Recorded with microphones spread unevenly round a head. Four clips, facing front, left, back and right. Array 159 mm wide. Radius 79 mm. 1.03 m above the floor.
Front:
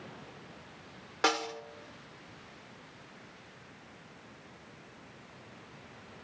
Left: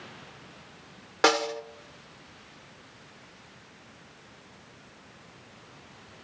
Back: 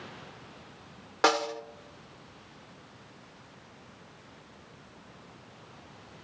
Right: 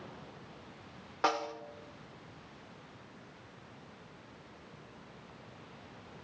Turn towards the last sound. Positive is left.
turn(degrees=100)